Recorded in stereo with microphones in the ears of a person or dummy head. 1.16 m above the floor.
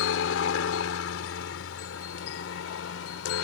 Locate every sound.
0.0 s a helicopter: 70° left (ahead or behind); by 3.4 s 75° left (ahead or behind)